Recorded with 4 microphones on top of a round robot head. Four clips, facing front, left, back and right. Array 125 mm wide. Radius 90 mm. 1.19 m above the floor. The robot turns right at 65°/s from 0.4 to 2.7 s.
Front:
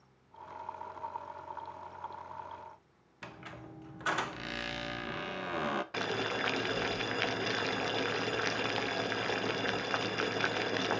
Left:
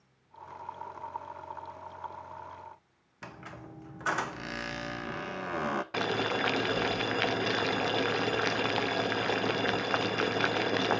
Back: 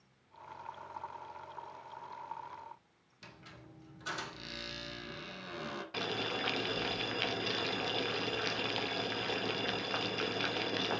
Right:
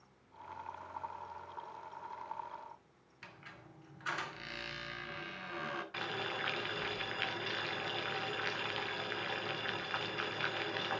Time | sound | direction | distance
3.2 | a squeak | 60° left | 0.7 m
5.9 | boiling | 85° left | 0.8 m